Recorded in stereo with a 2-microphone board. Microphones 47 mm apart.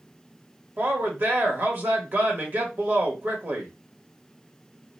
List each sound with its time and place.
0.8 s a woman speaking: 45° right (ahead or behind), 1.2 m